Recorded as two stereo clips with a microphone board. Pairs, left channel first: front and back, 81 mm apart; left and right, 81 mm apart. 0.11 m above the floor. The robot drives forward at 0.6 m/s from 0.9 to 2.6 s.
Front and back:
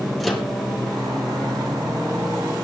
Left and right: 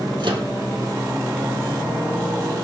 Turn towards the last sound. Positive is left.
turn(degrees=-120)